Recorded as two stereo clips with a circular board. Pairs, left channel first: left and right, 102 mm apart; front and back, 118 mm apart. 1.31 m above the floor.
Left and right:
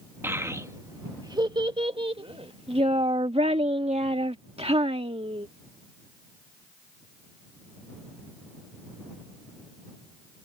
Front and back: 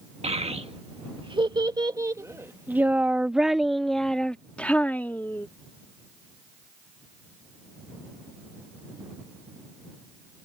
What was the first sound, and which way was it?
A child speaking, 155° right.